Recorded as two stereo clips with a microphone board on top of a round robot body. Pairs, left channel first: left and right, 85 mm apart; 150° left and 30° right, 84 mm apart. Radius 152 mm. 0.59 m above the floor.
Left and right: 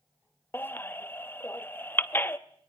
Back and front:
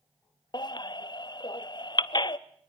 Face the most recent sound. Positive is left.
turn(degrees=150)